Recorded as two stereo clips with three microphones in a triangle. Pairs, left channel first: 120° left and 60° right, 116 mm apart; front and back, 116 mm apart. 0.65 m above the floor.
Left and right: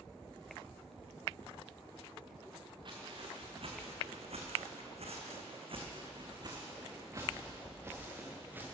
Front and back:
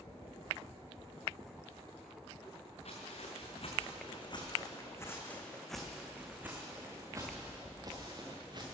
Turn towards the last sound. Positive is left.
turn(degrees=-130)